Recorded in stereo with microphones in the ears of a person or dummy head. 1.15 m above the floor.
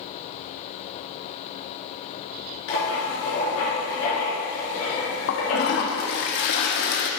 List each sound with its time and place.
2.7 s writing: 75° left (ahead or behind), 3 m
5.3 s a toilet flushing: 60° left (ahead or behind), 0.9 m